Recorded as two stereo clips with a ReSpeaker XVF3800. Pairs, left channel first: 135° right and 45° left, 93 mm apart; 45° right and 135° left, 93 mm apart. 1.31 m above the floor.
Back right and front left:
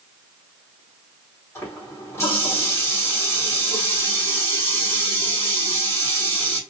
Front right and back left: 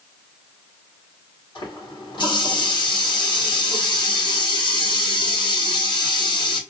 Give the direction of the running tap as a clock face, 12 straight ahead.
3 o'clock.